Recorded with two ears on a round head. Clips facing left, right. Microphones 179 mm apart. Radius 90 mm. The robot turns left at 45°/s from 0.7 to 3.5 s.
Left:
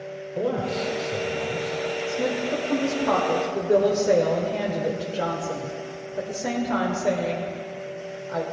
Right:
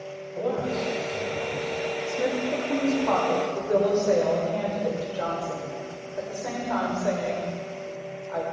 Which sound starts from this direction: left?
A man speaking, at 0.3 s.